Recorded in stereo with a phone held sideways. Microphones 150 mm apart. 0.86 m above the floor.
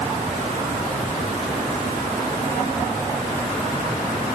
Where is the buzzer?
I don't hear a buzzer.